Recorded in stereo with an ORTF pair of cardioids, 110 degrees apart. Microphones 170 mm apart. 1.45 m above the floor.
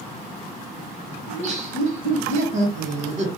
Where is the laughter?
45° right, 1.5 m.